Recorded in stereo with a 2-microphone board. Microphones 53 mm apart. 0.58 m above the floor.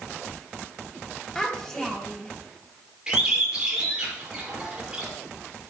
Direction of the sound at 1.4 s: 15° left (ahead or behind).